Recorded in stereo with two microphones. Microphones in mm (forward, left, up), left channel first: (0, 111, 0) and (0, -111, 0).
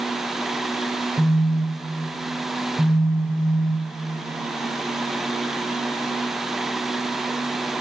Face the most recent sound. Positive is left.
turn(degrees=0)  # may be behind; listen again after turning